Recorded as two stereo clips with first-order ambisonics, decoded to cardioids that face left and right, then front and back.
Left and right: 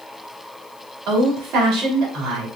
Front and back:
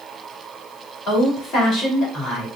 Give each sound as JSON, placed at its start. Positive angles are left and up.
{"t": 1.1, "sound": "a woman speaking", "azimuth_deg": -50, "distance_m": 3.0}